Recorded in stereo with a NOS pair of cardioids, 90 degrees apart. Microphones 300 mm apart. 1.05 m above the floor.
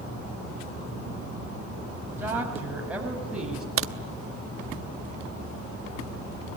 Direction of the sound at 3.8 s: 45° right.